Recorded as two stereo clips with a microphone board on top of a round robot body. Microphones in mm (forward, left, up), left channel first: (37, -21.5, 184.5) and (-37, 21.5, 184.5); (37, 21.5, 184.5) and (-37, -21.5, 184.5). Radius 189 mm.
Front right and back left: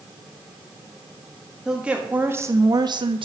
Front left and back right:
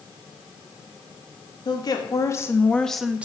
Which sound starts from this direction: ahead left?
A woman speaking, at 1.6 s.